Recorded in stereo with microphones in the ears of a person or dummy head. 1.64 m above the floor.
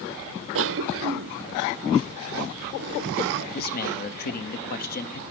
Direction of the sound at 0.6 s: 65° right (ahead or behind).